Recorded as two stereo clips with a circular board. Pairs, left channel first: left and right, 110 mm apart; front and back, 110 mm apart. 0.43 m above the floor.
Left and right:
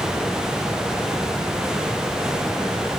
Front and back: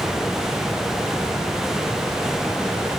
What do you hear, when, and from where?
Only background noise.